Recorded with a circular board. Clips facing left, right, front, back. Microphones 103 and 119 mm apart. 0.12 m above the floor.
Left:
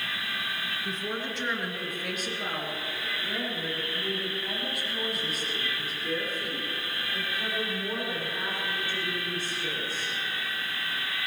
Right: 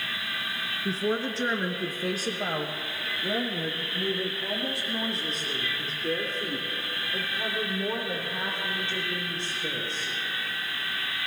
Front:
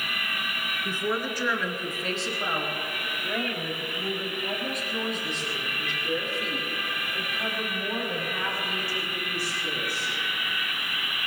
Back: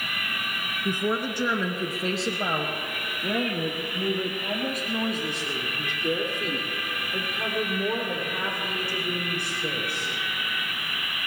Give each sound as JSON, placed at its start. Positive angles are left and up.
{"t": 0.8, "sound": "a woman speaking", "azimuth_deg": -115, "distance_m": 1.5}